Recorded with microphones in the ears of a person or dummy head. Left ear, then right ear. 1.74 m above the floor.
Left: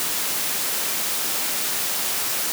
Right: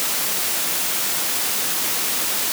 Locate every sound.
Only background noise.